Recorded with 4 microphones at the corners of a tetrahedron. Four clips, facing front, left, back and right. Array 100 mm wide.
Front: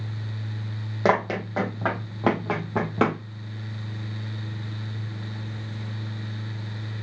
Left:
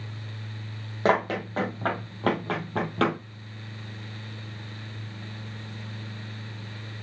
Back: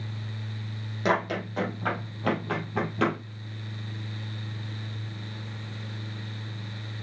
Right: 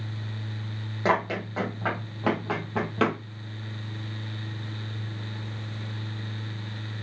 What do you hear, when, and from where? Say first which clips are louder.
1.1 s running footsteps: left 2 dB, front 4 dB; 30° left, 3.5 m; by 3.2 s 5° left, 2.5 m